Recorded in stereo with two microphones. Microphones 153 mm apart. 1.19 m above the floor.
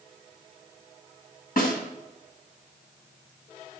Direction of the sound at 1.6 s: 65° left (ahead or behind).